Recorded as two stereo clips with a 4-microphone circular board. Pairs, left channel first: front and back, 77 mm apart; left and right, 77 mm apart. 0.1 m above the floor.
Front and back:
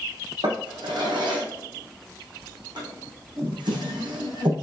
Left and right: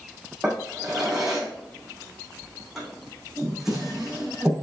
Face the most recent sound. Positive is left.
turn(degrees=-175)